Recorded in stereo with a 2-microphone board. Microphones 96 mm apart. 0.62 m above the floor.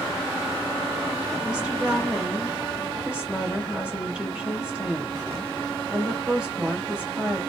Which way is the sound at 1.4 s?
10° right (ahead or behind).